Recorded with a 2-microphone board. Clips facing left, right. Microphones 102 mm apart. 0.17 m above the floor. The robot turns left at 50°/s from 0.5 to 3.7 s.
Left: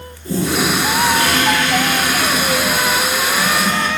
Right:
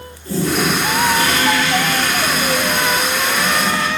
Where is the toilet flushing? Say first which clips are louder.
Even; 160° left, 1.3 m; by 3.9 s straight ahead, 1.3 m.